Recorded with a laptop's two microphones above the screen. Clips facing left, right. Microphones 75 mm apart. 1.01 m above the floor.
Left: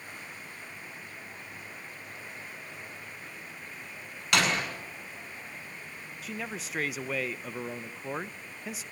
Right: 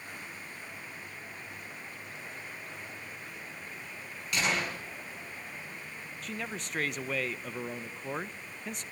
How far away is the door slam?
About 7.5 m.